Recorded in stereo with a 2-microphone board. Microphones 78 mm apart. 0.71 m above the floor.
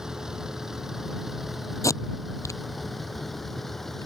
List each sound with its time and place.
0.0 s a vehicle: 5° right (ahead or behind); by 4.1 s 5° left (ahead or behind)
1.8 s tape being pulled: 40° left (ahead or behind)